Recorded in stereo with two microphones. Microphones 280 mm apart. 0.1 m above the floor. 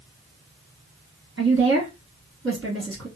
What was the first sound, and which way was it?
A woman speaking, 50° right (ahead or behind).